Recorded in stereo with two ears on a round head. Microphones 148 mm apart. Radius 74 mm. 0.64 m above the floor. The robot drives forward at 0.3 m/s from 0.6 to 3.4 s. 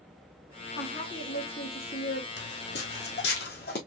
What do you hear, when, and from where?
0.8 s a woman speaking: 75° left (ahead or behind), 2.5 m; by 2.3 s 70° left (ahead or behind), 2.5 m
2.4 s footsteps: 75° left (ahead or behind), 2.0 m; by 3.8 s 65° left (ahead or behind), 2.5 m